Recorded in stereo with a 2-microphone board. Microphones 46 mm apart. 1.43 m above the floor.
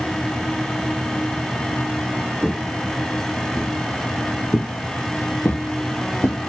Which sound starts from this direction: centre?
Footsteps, at 2.4 s.